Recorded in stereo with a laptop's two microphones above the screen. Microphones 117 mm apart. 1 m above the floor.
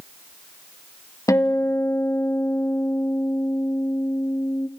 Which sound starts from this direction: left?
A guitar, at 1.3 s.